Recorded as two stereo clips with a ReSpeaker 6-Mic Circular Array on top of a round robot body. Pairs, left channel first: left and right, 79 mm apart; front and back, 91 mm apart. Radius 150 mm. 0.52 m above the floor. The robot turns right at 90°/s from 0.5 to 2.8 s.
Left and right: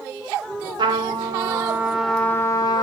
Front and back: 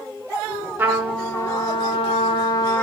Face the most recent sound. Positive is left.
turn(degrees=65)